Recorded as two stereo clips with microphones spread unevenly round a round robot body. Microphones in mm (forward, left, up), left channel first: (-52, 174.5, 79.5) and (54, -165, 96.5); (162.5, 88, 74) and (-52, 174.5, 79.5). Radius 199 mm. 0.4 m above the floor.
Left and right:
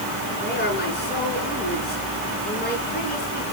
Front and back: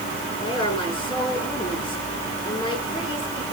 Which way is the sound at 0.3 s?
45° left.